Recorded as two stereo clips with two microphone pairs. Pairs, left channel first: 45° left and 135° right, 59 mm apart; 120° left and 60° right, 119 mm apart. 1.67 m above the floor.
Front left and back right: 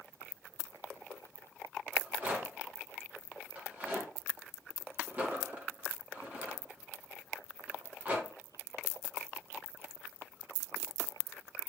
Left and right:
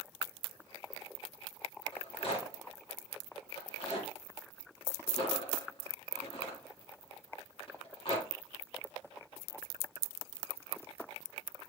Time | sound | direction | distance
1.9 | a rattle | 160° left | 2 m